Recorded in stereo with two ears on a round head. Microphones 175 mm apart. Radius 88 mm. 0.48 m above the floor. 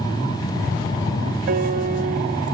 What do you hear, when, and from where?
1.5 s a piano: 45° right (ahead or behind), 0.5 m